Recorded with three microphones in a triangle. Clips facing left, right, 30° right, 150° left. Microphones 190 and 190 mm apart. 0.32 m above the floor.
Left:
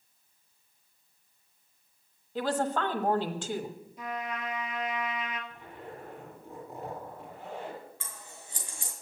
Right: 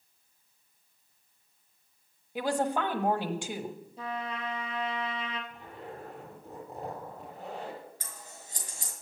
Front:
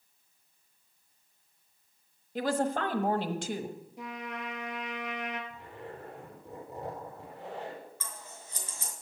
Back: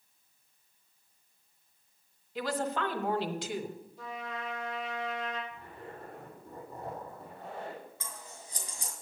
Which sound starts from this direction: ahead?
A woman speaking, at 2.4 s.